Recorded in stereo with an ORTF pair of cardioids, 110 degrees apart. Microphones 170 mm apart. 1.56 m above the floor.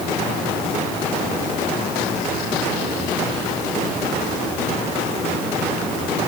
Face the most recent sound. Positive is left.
No sound to turn to.